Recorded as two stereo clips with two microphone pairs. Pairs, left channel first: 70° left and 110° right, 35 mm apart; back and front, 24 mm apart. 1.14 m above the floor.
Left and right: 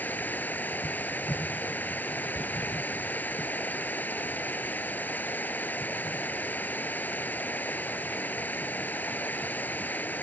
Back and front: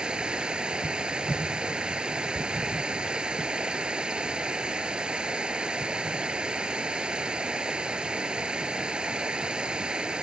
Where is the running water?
45° left.